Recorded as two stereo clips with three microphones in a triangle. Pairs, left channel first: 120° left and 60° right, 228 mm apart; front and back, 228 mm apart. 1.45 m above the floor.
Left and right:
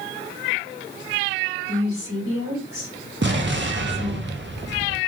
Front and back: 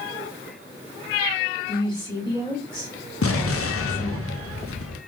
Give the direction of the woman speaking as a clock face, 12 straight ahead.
2 o'clock.